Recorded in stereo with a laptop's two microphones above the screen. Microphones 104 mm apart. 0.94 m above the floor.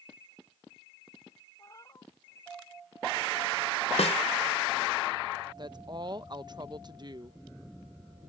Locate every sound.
1.6 s a cat meowing: 35° left (ahead or behind)
4.0 s a snare drum: 80° left
5.6 s a woman speaking: 45° right (ahead or behind)